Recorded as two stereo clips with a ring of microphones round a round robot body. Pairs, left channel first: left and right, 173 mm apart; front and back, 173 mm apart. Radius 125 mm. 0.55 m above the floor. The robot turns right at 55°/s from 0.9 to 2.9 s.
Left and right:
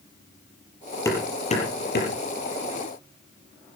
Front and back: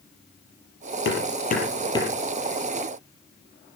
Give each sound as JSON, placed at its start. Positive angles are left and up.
{"t": 1.1, "sound": "hammering", "azimuth_deg": 15, "distance_m": 7.0}